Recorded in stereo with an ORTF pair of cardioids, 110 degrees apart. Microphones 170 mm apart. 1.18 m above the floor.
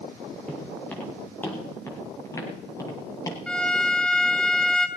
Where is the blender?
I don't hear a blender.